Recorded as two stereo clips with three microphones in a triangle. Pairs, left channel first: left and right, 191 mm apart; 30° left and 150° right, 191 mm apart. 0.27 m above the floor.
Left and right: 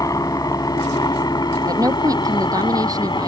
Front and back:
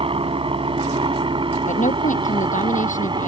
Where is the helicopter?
155° left; by 3.3 s 150° left.